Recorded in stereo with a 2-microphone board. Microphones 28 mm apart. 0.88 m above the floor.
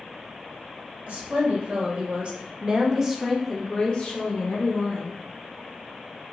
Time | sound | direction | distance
1.1 | a woman speaking | 55° right (ahead or behind) | 1.3 m